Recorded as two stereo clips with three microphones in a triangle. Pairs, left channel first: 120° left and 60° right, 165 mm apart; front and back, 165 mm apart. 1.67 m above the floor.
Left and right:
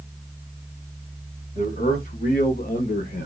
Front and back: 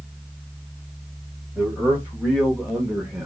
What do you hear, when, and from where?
1.6 s a man speaking: 100° left, 3 m